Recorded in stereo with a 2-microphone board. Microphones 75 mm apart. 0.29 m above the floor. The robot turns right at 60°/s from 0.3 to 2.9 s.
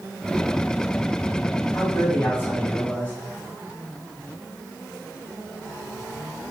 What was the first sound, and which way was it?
A man speaking, 70° left.